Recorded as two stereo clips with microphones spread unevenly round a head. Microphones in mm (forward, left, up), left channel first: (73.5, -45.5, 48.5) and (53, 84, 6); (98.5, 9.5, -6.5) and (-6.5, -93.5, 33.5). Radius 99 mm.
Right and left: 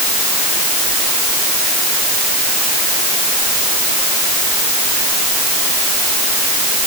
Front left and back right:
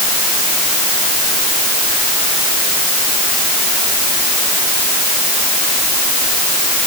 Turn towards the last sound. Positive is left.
No sound to turn to.